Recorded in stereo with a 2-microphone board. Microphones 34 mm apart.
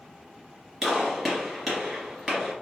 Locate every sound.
0.8 s a gunshot: 5° right (ahead or behind), 1.5 m